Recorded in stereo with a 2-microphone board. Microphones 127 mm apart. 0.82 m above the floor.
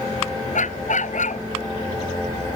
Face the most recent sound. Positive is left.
turn(degrees=80)